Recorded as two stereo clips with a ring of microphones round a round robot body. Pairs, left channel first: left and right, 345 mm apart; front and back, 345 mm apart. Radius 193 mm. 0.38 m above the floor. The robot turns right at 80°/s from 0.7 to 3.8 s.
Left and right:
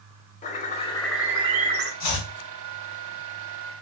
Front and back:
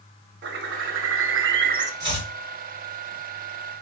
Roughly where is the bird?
Behind left.